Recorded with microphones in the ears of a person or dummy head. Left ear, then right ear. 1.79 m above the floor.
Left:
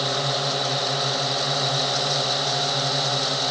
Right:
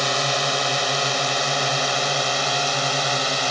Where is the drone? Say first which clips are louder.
Right 3 dB; 70° right (ahead or behind); by 3.5 s 75° right (ahead or behind).